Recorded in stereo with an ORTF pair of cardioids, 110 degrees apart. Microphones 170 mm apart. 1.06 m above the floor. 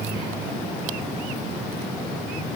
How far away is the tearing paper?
No tearing paper in this recording.